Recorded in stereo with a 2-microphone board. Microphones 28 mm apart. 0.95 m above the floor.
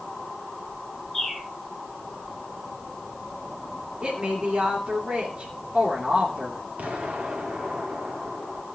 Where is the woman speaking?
50° right (ahead or behind), 3 m.